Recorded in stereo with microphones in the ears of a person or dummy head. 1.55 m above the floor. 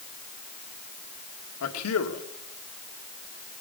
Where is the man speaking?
80° left, 1.9 m.